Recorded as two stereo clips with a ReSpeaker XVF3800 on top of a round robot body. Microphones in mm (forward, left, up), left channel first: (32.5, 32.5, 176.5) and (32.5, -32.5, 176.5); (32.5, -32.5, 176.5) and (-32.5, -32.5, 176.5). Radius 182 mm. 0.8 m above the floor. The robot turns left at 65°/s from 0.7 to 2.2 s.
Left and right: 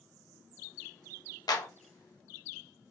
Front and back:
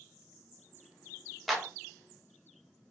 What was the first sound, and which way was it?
A clap, 90° left.